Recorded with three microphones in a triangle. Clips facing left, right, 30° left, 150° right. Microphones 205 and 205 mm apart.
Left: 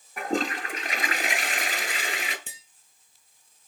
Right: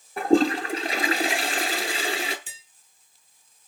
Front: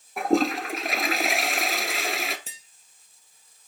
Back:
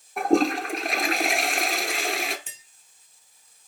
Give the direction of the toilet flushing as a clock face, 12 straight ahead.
2 o'clock.